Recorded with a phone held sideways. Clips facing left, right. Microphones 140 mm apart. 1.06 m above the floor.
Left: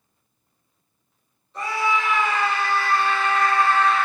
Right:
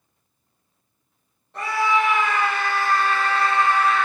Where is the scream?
60° right (ahead or behind), 1.6 m; by 4.0 s 5° left (ahead or behind), 0.5 m.